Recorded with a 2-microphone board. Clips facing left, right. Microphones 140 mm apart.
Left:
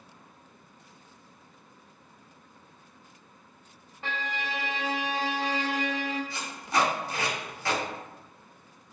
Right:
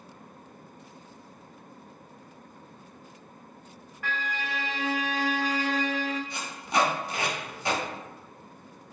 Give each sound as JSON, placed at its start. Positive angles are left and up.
{"t": 4.0, "sound": "a violin", "side_deg": 25, "distance_m": 0.6}
{"t": 6.3, "sound": "tape being pulled", "side_deg": -20, "distance_m": 1.0}